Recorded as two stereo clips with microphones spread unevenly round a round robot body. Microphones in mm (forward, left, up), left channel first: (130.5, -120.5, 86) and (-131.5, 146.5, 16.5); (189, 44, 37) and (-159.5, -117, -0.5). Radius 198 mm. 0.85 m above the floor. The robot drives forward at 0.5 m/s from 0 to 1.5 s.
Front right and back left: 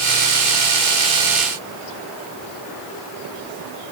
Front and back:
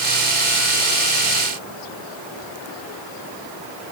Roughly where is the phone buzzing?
No phone buzzing in this recording.